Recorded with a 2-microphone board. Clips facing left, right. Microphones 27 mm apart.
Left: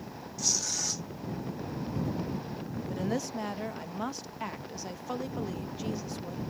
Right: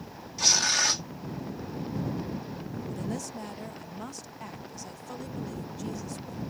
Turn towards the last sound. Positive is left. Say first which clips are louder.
# left 5 dB
turn(degrees=25)  # may be behind; listen again after turning